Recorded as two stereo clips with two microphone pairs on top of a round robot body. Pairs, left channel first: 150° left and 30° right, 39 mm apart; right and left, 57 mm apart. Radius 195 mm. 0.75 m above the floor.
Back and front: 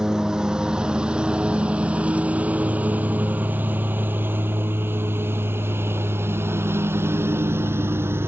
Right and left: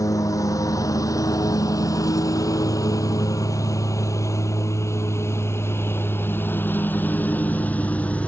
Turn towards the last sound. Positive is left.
turn(degrees=-25)